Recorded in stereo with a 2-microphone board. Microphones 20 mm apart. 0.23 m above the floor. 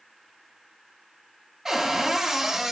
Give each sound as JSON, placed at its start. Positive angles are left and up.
{"t": 1.6, "sound": "a cupboard door", "side_deg": -20, "distance_m": 0.8}